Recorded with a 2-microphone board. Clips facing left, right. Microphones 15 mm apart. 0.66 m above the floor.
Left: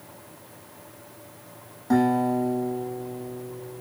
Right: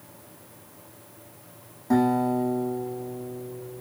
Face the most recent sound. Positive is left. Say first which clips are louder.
# left 1 dB
turn(degrees=20)  # may be behind; listen again after turning